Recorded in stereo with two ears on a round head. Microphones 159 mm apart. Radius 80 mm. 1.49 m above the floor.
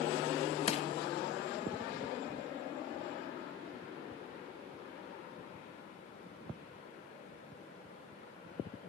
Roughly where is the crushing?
Left.